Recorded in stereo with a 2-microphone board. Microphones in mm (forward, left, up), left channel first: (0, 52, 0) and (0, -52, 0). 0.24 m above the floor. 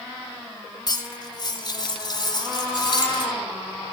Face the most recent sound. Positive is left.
turn(degrees=40)  # may be behind; listen again after turning